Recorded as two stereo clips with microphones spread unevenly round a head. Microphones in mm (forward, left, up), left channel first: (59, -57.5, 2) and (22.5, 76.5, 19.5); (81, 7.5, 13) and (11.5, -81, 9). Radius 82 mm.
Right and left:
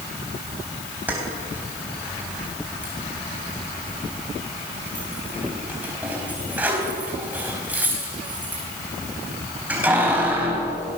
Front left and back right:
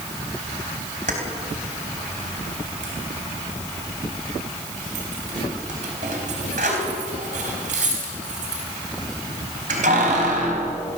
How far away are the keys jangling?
About 4 m.